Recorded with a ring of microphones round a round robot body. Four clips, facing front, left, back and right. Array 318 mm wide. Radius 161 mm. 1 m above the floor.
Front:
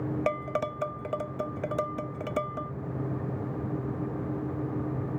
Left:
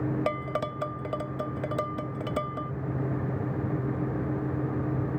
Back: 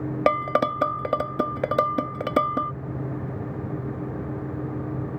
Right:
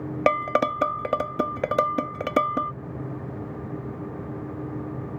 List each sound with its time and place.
0.3 s dishes clattering: 145° right